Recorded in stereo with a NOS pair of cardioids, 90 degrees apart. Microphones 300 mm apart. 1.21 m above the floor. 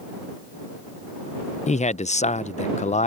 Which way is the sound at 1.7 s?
25° left.